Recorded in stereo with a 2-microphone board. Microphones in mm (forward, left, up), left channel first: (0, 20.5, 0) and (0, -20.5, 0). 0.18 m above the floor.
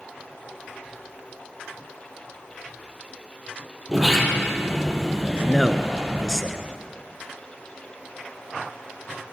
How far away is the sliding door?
About 4.5 m.